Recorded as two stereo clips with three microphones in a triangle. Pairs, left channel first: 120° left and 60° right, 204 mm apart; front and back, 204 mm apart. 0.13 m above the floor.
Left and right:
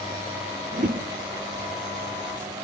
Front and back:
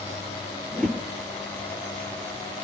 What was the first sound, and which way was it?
A whoosh, 85° right.